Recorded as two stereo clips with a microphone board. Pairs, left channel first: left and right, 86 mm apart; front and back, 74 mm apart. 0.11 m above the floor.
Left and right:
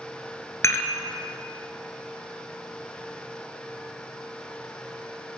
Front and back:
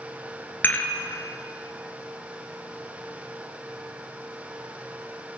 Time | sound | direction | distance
0.6 | dishes clattering | 50° left | 1.1 m